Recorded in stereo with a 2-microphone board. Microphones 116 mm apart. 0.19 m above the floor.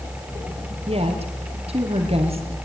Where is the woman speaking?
60° right (ahead or behind), 5.5 m.